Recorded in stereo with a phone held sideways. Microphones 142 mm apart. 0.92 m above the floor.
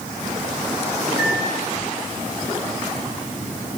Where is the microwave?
5° right (ahead or behind), 8.5 m.